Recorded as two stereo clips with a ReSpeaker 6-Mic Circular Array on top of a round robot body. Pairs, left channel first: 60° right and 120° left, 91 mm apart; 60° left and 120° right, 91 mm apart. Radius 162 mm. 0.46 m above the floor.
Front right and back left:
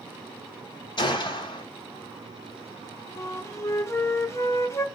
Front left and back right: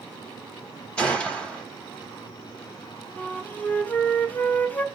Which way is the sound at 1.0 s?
20° right.